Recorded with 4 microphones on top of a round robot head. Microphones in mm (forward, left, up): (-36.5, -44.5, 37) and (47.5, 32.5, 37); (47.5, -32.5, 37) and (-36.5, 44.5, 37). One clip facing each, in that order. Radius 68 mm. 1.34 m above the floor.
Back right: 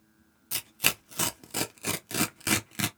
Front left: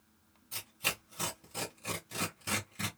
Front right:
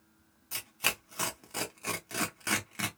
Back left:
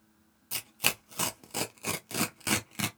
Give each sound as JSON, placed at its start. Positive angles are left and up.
{"t": 0.5, "sound": "tearing paper", "azimuth_deg": -155, "distance_m": 0.6}